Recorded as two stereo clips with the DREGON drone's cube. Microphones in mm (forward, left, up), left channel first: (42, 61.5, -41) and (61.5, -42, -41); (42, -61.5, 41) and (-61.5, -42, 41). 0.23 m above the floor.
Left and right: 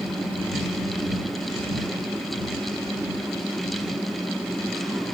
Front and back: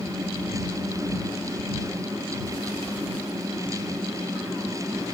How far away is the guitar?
No guitar in this recording.